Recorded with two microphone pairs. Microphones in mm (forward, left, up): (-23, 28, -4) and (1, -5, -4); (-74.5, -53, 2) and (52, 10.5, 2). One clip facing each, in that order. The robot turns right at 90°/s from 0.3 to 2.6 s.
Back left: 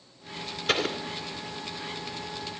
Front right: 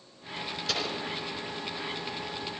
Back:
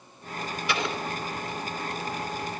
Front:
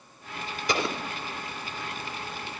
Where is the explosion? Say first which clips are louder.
Back left 6 dB, front 2 dB; 75° left, 2.5 m; by 1.0 s 100° left, 2.5 m.